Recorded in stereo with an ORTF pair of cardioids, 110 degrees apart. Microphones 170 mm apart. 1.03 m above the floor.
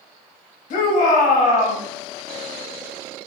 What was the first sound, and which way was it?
A shout, 55° left.